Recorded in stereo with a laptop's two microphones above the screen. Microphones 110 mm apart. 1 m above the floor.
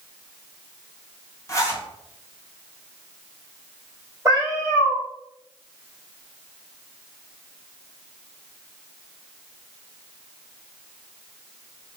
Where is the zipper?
25° left (ahead or behind), 0.7 m.